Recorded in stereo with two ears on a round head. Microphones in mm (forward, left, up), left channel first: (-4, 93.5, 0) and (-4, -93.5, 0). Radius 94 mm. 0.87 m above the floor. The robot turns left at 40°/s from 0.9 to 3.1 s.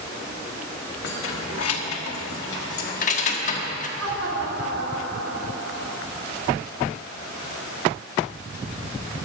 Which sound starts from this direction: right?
Laughter, at 4.0 s.